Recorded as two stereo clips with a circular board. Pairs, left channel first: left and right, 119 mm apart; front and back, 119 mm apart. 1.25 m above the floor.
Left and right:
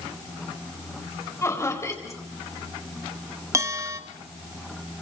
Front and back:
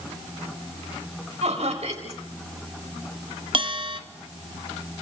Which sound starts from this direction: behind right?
A bell, at 3.5 s.